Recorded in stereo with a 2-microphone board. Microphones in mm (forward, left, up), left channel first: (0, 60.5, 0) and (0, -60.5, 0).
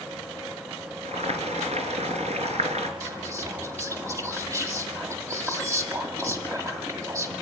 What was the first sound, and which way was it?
Boiling, 60° right (ahead or behind).